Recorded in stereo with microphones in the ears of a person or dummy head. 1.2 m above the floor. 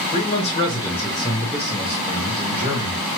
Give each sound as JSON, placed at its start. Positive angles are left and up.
{"t": 0.1, "sound": "a man speaking", "side_deg": 35, "distance_m": 1.4}